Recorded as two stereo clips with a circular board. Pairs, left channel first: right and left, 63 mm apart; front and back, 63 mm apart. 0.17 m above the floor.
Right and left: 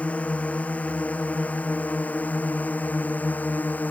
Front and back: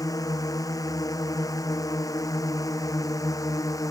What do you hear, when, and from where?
0.0 s a drone: 20° right; by 3.9 s 25° right